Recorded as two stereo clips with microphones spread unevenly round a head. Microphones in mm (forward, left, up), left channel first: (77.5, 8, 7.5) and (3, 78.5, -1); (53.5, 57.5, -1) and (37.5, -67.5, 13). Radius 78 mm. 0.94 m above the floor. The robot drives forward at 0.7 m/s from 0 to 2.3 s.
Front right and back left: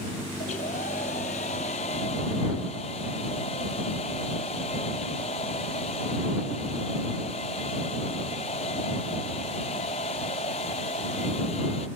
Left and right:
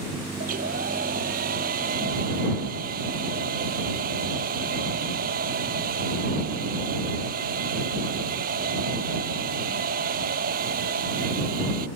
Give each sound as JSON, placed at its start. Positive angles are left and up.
{"t": 0.4, "sound": "a hair dryer", "azimuth_deg": -90}